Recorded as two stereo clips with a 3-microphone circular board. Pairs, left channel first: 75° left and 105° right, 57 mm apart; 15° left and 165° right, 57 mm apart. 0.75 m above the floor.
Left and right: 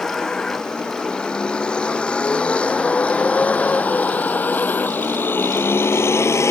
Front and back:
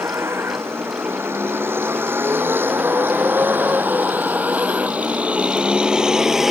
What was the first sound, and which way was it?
A vehicle, 155° left.